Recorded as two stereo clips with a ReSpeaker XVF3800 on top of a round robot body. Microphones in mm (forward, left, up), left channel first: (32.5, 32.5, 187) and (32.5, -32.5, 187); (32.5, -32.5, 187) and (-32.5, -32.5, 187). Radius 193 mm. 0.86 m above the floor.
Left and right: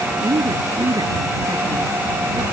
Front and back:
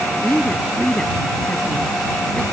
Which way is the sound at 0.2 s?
75° right.